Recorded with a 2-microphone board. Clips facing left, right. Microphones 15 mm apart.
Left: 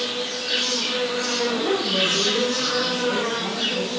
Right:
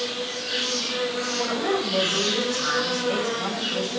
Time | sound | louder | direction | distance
0.0 | an insect | left 2 dB | 20° left (ahead or behind) | 3.5 m
1.4 | a woman speaking | left 1 dB | 65° right (ahead or behind) | 7 m